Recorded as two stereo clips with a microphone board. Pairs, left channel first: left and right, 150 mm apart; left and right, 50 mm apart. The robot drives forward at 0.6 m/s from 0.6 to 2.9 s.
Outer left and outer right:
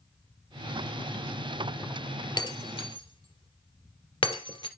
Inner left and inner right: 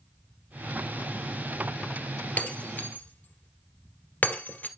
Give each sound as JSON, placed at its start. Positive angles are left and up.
{"t": 2.4, "sound": "breaking glass", "side_deg": 30, "distance_m": 1.6}